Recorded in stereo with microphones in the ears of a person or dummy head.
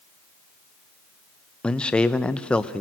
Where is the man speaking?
5° left (ahead or behind), 0.9 m.